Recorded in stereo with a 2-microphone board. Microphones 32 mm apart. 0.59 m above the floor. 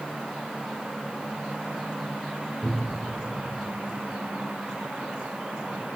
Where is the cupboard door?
10° right (ahead or behind), 1.8 m.